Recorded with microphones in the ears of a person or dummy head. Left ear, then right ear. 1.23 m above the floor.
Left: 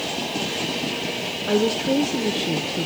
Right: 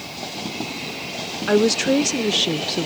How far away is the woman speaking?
About 0.6 m.